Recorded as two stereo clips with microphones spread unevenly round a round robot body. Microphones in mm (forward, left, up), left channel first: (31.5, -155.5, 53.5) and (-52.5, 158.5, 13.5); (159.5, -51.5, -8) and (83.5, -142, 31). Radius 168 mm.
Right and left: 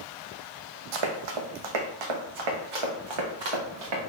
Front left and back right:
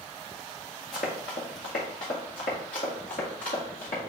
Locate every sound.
0.9 s running footsteps: 110° left, 1.0 m; by 4.0 s 95° left, 2.5 m